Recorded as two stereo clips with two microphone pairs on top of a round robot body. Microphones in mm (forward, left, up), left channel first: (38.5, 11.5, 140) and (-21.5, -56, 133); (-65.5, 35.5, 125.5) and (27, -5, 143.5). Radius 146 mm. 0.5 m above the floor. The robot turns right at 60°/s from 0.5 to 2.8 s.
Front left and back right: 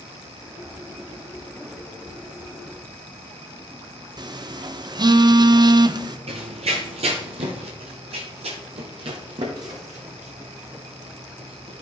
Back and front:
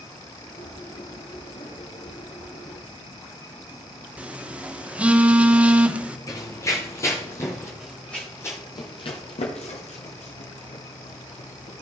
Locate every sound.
4.2 s a phone buzzing: 110° right, 0.8 m
6.3 s running footsteps: 135° right, 0.7 m
7.8 s running footsteps: 110° right, 1.4 m; by 11.8 s 140° left, 2.5 m